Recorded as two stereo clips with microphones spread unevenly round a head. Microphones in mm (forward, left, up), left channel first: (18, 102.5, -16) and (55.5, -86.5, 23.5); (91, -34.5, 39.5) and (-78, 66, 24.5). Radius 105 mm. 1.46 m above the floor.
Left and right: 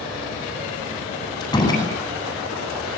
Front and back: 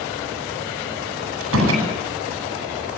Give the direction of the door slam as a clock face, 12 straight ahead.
6 o'clock.